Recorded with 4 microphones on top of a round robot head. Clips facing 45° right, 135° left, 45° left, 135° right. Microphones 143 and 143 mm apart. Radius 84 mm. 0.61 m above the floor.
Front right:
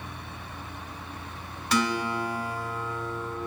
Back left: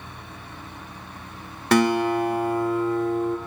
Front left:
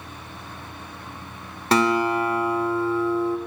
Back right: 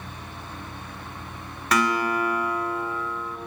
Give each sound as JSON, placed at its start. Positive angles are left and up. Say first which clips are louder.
{"t": 1.7, "sound": "a guitar", "louder": "back left 8 dB, front left 4 dB", "azimuth_deg": 105, "distance_m": 0.7}